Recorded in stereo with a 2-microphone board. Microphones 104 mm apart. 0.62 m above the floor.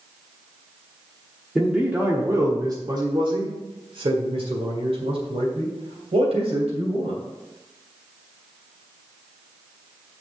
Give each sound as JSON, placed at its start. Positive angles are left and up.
{"t": 1.6, "sound": "a man speaking", "side_deg": -5, "distance_m": 1.1}